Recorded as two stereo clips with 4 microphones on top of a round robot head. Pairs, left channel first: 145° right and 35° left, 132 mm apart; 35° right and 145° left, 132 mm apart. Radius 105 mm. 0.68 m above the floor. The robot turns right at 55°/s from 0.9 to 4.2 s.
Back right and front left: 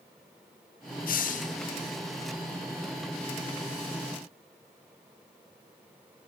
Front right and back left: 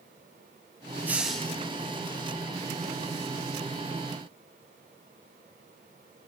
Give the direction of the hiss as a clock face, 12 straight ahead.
5 o'clock.